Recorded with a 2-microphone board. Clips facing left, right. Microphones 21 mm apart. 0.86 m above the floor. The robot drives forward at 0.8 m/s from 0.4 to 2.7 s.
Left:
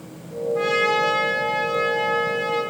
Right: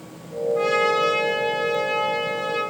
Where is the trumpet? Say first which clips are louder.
Even; 10° left (ahead or behind), 1.9 m; by 2.6 s 5° left (ahead or behind), 3.5 m.